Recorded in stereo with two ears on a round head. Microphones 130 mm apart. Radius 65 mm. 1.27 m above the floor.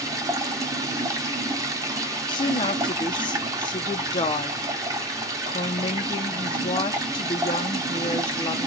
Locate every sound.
0.0 s running water: 25° right (ahead or behind), 0.8 m
2.3 s a woman speaking: 35° left (ahead or behind), 0.7 m